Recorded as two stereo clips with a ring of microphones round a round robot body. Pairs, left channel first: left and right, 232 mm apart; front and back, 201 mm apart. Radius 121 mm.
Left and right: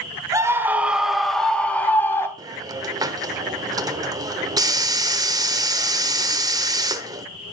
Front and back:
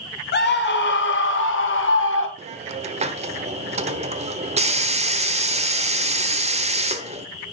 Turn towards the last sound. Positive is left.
turn(degrees=-155)